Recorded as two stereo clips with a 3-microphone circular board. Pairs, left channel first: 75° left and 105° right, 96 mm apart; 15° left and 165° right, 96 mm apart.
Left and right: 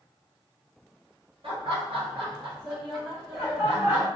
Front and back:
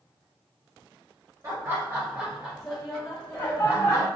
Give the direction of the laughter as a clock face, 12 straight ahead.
4 o'clock.